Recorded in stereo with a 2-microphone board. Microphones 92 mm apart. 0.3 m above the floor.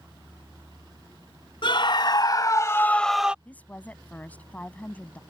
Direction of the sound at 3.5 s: 15° left (ahead or behind).